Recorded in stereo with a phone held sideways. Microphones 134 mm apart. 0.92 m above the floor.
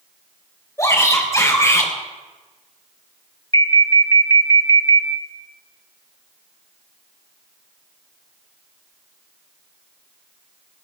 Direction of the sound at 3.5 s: 25° left (ahead or behind).